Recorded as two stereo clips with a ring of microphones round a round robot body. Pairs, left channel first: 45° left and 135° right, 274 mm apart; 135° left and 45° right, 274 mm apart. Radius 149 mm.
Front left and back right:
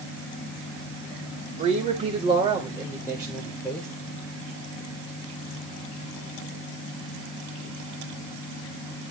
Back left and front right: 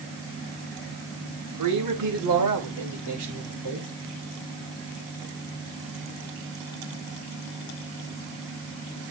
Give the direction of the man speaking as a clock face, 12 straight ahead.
2 o'clock.